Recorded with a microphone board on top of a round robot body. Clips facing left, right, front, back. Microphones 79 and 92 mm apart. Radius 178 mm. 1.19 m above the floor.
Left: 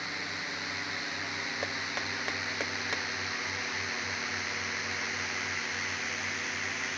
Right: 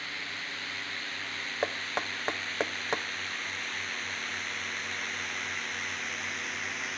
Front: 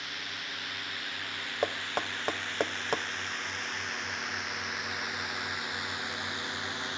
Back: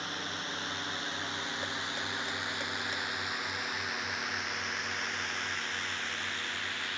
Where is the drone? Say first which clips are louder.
Left 2 dB, back 3 dB; 150° left; by 7.0 s 5° left.